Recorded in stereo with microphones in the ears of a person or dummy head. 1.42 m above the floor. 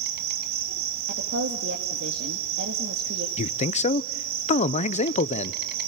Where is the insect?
55° right (ahead or behind), 1.9 m.